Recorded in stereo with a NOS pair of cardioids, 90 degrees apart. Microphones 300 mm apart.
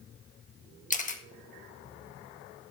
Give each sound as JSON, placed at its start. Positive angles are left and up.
{"t": 0.9, "sound": "a camera shutter", "azimuth_deg": 25, "distance_m": 1.6}